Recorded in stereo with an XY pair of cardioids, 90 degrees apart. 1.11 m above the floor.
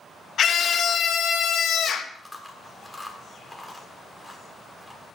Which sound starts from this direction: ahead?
Chewing, at 2.1 s.